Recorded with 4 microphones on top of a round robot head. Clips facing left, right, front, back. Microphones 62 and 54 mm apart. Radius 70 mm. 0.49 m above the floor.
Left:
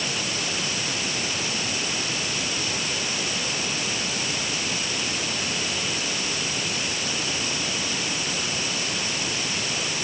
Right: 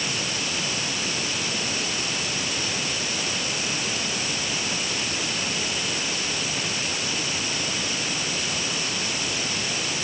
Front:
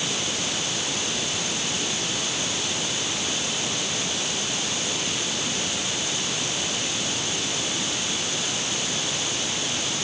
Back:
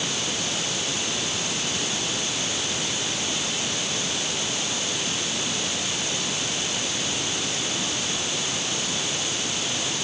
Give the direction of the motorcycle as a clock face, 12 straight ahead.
No motorcycle in this recording.